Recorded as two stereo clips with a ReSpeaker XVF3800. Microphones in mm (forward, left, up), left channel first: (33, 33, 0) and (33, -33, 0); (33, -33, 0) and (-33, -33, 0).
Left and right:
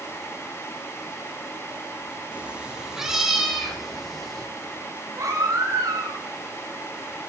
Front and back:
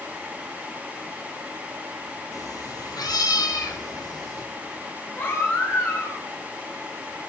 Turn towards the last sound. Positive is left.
turn(degrees=-55)